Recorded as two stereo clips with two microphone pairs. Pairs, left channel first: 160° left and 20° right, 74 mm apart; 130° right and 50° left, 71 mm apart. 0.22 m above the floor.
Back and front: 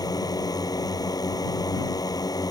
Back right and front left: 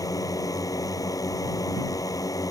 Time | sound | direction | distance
0.0 | a drone | 165° right | ?